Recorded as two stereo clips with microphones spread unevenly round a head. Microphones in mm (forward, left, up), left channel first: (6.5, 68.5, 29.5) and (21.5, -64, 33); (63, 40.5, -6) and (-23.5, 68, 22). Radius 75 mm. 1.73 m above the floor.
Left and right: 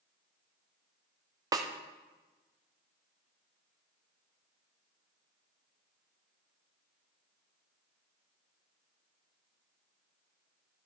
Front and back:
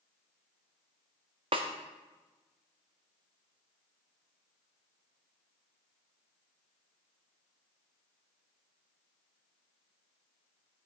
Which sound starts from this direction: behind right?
A snare drum, at 1.5 s.